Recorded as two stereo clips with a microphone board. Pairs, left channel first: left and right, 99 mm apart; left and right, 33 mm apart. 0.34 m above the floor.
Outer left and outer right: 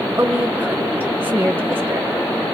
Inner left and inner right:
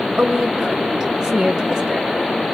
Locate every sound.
0.2 s a woman speaking: 25° right (ahead or behind), 1.5 m